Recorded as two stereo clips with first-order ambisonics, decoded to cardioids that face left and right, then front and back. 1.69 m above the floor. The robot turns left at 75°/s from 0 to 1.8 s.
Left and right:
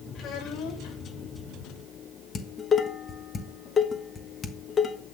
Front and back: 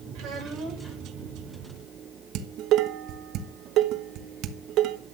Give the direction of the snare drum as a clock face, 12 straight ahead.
I don't hear a snare drum.